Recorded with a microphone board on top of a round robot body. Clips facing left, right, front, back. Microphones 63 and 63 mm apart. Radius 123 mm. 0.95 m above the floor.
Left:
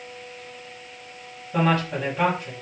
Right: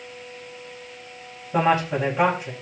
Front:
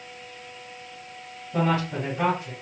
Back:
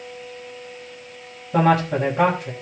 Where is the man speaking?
160° right, 5 m.